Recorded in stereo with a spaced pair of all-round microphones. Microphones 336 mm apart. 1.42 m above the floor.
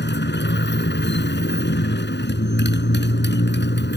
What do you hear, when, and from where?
0.0 s a motorcycle: 30° left (ahead or behind)